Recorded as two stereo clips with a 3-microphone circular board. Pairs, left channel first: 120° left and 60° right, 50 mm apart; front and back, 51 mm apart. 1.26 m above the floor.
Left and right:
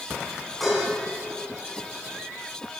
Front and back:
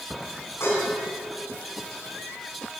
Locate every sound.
0.6 s dishes clattering: 30° left, 7.5 m